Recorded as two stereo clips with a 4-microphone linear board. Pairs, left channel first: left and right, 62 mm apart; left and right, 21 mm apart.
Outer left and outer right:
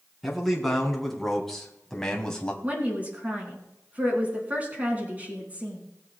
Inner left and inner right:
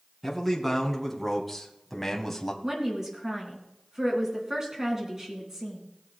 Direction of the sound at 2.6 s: 25° right (ahead or behind).